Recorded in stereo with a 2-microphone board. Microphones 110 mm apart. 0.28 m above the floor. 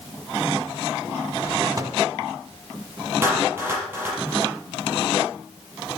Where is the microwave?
30° right (ahead or behind), 1.5 m.